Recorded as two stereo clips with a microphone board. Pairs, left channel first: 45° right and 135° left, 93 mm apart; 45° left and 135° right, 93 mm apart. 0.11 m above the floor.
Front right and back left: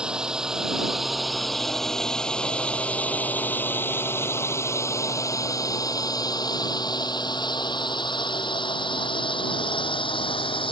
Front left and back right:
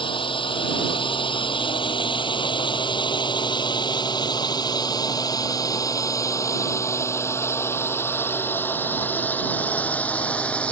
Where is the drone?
55° left; by 10.7 s 30° right.